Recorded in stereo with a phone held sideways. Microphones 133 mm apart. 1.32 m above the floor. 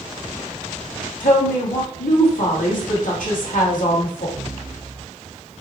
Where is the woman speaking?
80° left, 1.6 m.